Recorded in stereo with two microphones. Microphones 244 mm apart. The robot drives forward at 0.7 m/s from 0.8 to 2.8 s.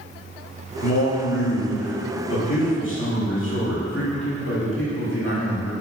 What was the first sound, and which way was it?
A man speaking, 80° left.